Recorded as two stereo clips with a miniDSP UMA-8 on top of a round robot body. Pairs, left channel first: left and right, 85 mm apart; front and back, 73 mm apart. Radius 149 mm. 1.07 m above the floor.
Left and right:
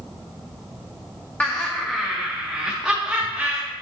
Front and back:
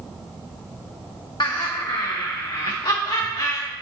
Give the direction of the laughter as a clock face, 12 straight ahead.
11 o'clock.